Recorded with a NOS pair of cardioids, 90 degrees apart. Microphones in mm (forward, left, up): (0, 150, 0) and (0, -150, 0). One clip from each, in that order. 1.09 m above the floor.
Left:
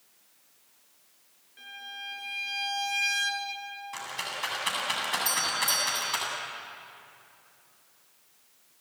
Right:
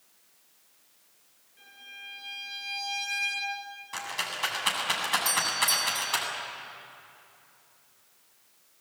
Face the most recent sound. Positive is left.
turn(degrees=-5)